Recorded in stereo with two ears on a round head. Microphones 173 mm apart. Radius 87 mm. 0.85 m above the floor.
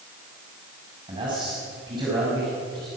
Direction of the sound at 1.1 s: 25° right (ahead or behind).